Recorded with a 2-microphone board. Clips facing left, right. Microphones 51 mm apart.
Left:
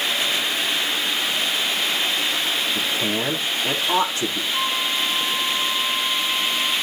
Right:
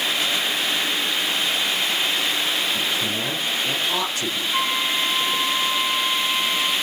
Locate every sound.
2.8 s a man speaking: 35° left (ahead or behind), 4.5 m
4.5 s a flute: 35° right (ahead or behind), 5.5 m